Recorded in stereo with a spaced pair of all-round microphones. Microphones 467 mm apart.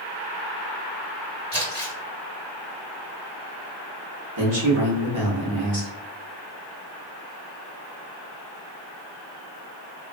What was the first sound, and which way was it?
Crumpling, 45° right (ahead or behind).